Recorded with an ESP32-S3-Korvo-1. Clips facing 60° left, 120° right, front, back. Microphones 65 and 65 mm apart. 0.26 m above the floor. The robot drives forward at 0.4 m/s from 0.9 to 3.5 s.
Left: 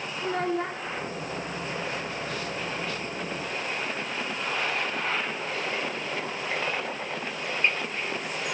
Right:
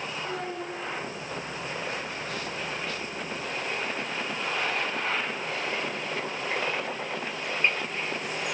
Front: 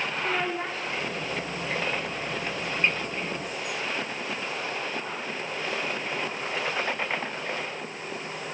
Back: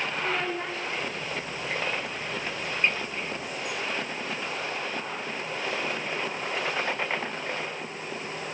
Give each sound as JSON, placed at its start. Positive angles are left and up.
{"t": 0.2, "sound": "a child speaking", "azimuth_deg": 80, "distance_m": 3.0}